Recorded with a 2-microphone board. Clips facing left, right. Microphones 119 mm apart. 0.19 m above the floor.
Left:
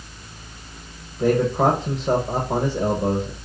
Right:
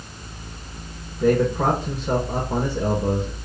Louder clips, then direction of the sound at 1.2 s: Left 1 dB; 80° left.